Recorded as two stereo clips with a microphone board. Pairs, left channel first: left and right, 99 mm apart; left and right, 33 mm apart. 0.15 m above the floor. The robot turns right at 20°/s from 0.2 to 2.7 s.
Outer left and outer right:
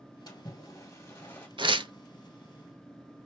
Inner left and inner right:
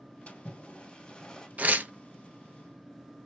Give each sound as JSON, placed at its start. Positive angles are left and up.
{"t": 0.3, "sound": "a splash", "side_deg": 40, "distance_m": 1.6}
{"t": 1.6, "sound": "tearing paper", "side_deg": -55, "distance_m": 0.7}